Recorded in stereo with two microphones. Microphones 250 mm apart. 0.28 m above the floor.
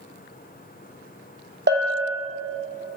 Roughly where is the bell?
Right.